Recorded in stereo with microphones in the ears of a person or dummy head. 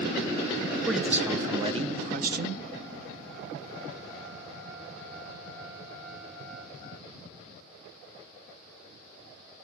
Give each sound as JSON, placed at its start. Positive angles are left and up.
{"t": 0.9, "sound": "a man speaking", "side_deg": 5, "distance_m": 0.8}